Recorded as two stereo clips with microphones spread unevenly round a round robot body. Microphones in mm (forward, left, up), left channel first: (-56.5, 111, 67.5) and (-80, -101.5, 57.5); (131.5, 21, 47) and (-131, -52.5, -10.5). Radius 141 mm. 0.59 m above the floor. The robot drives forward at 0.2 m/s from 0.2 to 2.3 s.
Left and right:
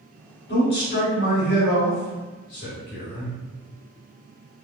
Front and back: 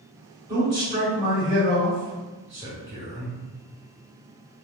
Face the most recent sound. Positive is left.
turn(degrees=130)